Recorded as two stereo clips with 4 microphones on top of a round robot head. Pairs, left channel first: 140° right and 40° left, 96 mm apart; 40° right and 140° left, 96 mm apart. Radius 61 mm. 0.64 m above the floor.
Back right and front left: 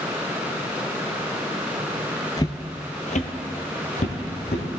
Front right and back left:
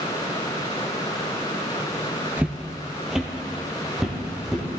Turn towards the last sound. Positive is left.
turn(degrees=-130)